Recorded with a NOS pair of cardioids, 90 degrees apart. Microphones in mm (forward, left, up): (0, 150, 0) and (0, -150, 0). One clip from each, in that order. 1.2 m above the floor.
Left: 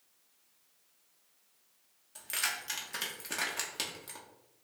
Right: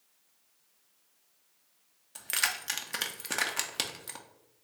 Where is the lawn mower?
No lawn mower in this recording.